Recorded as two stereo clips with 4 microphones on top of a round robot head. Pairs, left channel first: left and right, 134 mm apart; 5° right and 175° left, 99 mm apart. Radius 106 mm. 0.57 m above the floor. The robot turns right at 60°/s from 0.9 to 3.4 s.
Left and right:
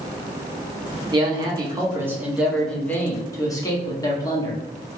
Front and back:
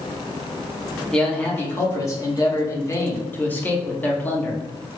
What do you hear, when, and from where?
1.1 s a man speaking: 85° right, 1.1 m; by 4.6 s 50° left, 1.1 m